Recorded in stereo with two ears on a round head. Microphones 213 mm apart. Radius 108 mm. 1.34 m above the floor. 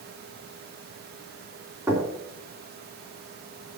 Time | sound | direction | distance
1.9 | knocking | 10° right (ahead or behind) | 2.5 m